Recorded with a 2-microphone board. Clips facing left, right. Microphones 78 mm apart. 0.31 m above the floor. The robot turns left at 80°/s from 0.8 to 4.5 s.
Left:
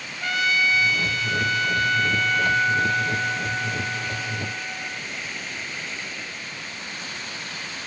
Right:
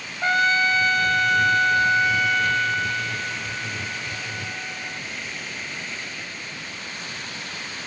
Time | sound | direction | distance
0.2 | a trumpet | 55° right | 0.9 m